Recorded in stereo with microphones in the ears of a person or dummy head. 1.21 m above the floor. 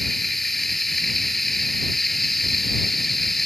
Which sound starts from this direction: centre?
Running water, at 0.0 s.